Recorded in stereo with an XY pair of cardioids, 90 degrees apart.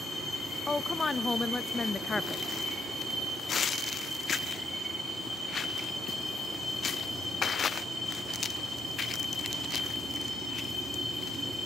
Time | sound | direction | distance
0.7 | a woman speaking | 30° left | 0.7 m